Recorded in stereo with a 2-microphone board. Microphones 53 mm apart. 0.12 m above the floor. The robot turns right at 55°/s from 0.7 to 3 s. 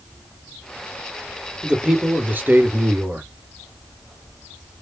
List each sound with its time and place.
1.6 s a man speaking: 150° right, 1.9 m; by 3.3 s 75° right, 1.9 m